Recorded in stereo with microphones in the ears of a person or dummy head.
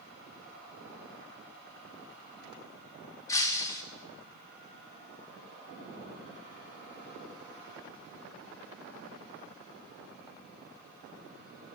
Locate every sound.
3.3 s breaking glass: 20° left (ahead or behind), 1.2 m